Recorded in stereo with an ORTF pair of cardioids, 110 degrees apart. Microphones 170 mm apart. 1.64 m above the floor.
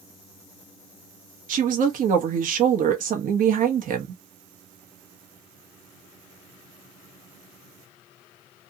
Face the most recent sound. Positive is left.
turn(degrees=-55)